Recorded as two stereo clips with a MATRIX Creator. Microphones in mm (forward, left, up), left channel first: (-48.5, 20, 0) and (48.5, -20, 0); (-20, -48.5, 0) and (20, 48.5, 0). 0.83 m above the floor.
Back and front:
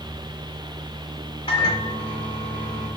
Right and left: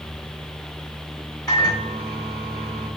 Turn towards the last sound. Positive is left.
turn(degrees=-165)